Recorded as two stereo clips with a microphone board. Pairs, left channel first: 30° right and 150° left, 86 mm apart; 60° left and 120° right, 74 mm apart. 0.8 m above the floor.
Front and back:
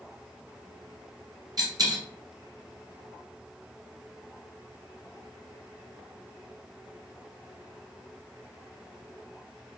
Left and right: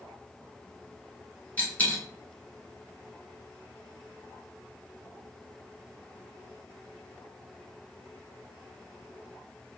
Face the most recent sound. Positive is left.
turn(degrees=125)